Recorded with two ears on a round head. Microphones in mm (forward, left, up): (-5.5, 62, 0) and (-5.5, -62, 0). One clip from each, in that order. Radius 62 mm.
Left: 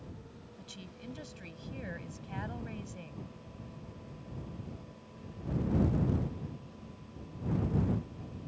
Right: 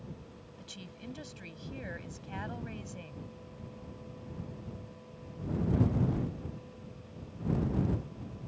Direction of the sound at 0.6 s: 10° right (ahead or behind).